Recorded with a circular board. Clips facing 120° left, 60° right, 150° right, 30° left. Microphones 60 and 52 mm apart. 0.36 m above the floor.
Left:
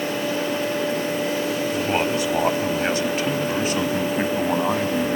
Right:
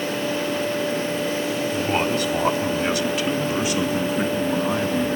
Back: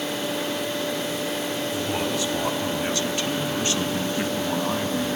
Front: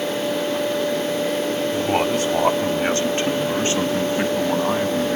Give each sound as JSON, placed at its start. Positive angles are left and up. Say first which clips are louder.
{"t": 1.7, "sound": "a man speaking", "louder": "right 1 dB, front 7 dB", "azimuth_deg": 45, "distance_m": 2.0}